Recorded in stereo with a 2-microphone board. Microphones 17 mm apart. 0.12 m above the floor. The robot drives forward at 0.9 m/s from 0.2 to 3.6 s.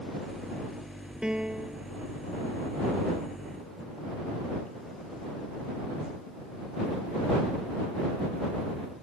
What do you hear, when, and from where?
1.2 s a piano: 55° right (ahead or behind); by 1.8 s 50° right (ahead or behind)